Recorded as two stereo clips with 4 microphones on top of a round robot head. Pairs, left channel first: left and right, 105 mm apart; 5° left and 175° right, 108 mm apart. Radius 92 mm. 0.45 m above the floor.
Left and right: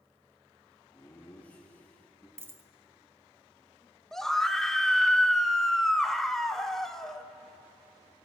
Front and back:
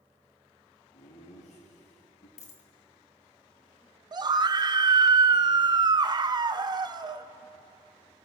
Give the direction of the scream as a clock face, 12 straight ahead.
6 o'clock.